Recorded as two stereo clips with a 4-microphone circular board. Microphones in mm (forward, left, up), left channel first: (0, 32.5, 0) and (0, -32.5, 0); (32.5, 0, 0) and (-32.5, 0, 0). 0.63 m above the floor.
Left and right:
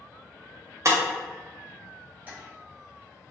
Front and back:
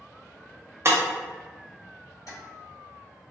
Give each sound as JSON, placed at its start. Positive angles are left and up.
{"t": 0.8, "sound": "breaking glass", "azimuth_deg": -130, "distance_m": 0.6}
{"t": 2.3, "sound": "tapping", "azimuth_deg": -30, "distance_m": 1.0}